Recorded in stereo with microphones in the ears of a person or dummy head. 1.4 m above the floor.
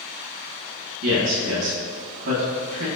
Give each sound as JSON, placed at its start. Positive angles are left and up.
{"t": 1.0, "sound": "a man speaking", "side_deg": -75, "distance_m": 2.0}